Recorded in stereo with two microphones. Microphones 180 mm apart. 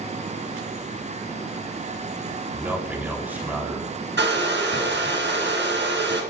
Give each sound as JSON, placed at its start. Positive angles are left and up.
{"t": 2.5, "sound": "a man speaking", "side_deg": -10, "distance_m": 4.0}
{"t": 4.2, "sound": "a hair dryer", "side_deg": -85, "distance_m": 2.5}